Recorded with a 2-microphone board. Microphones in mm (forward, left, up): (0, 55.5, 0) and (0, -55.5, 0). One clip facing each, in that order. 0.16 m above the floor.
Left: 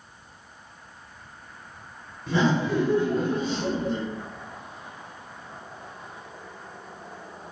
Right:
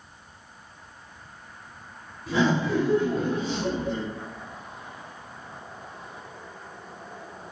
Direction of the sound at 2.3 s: 5° right (ahead or behind).